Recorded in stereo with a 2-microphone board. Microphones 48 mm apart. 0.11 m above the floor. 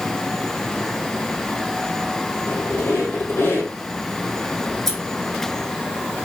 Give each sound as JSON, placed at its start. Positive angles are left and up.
{"t": 2.5, "sound": "a squeak", "side_deg": 55, "distance_m": 1.8}
{"t": 4.7, "sound": "scissors", "side_deg": 10, "distance_m": 1.3}